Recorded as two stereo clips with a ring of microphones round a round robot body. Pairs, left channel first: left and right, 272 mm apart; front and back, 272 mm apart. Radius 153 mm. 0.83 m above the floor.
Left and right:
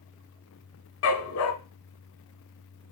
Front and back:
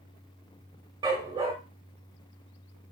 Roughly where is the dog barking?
Left.